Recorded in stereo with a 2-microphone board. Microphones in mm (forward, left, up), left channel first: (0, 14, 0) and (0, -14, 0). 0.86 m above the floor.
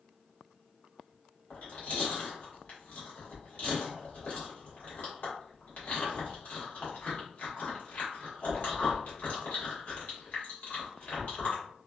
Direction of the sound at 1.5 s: 60° left (ahead or behind).